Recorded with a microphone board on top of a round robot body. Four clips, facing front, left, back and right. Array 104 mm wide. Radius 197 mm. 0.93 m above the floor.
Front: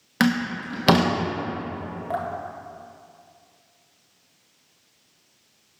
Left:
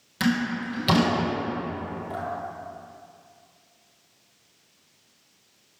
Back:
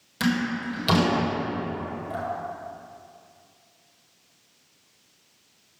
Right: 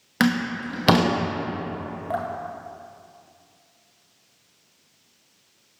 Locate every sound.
0.2 s a door slam: 45° right, 1.1 m
2.1 s dripping: 45° right, 0.8 m